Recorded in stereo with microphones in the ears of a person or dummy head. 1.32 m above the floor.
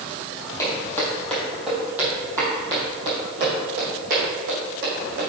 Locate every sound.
0.6 s footsteps: 15° left (ahead or behind), 2.5 m; by 5.3 s 50° right (ahead or behind), 3.5 m